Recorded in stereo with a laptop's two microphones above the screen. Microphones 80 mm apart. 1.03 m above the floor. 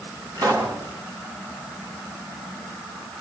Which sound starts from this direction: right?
A pop, at 0.3 s.